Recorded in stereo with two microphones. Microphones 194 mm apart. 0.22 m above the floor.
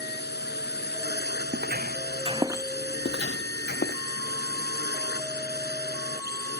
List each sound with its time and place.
0.0 s a drone: 60° left (ahead or behind)
1.5 s footsteps: 65° right (ahead or behind); by 2.7 s 15° right (ahead or behind)
3.0 s footsteps: 65° left (ahead or behind); by 4.0 s 55° left (ahead or behind)